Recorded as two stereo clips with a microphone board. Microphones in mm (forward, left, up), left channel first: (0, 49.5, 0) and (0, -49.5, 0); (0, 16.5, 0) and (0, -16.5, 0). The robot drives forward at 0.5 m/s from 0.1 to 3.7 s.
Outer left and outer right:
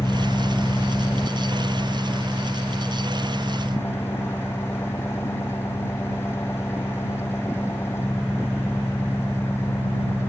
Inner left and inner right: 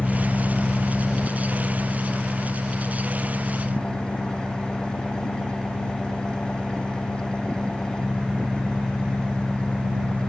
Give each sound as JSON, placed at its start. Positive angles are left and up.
{"t": 0.0, "sound": "an engine running", "side_deg": 35}